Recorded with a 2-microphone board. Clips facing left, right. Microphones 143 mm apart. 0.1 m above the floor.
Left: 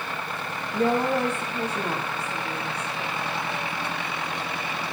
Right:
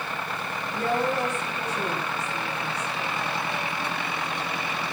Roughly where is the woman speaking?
Left.